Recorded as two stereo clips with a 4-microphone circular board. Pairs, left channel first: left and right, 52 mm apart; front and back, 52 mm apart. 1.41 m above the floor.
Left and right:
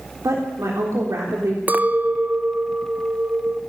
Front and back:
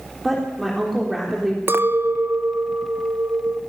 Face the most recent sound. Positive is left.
turn(degrees=-145)